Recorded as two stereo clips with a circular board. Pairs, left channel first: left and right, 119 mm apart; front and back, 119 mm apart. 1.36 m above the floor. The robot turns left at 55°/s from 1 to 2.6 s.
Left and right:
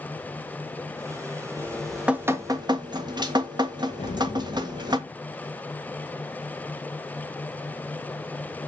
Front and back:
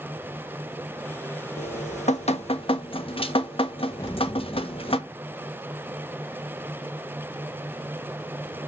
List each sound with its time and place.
1.6 s dripping: 20° left, 1.4 m; by 5.0 s 40° right, 1.4 m
4.0 s an explosion: 65° left, 1.2 m